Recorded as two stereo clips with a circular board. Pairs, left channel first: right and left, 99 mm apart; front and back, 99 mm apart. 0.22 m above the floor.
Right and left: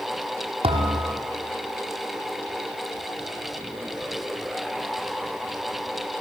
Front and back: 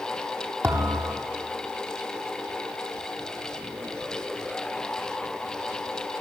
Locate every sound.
0.6 s a thud: 115° left, 4 m